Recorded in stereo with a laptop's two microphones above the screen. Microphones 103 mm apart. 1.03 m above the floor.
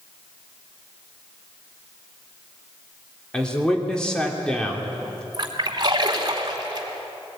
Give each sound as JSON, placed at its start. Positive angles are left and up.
{"t": 3.3, "sound": "a man speaking", "side_deg": 10, "distance_m": 3.0}
{"t": 5.3, "sound": "a splash", "side_deg": -40, "distance_m": 2.5}